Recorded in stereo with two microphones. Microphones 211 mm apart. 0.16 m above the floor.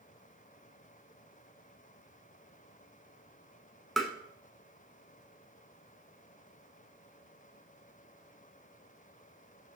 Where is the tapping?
Centre (ahead or behind), 0.8 m.